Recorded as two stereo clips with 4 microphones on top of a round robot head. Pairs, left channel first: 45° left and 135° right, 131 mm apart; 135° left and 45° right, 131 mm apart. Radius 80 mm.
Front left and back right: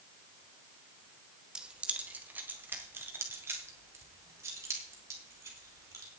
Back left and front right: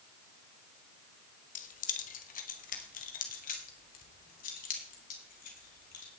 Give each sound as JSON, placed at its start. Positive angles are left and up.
{"t": 1.6, "sound": "keys jangling", "azimuth_deg": 140, "distance_m": 1.3}